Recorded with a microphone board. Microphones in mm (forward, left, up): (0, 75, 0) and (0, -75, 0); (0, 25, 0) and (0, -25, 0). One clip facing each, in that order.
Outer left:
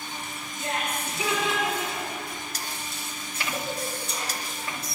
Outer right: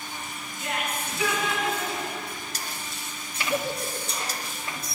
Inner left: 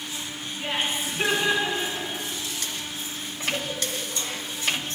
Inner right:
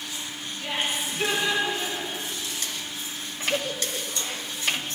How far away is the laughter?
About 1.9 m.